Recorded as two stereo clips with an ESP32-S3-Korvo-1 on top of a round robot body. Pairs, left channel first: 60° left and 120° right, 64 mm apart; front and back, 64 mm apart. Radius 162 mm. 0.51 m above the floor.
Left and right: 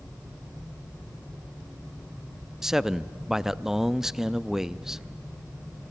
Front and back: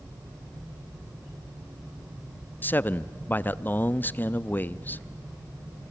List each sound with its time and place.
2.6 s a man speaking: 40° right, 0.7 m